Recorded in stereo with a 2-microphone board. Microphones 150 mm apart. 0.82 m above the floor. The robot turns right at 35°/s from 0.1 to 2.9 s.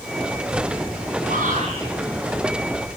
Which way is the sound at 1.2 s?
60° right (ahead or behind).